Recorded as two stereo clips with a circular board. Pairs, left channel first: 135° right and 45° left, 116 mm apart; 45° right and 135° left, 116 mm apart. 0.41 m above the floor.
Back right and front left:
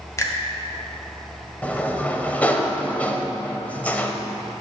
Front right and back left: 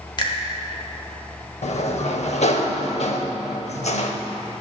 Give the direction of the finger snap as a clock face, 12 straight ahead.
3 o'clock.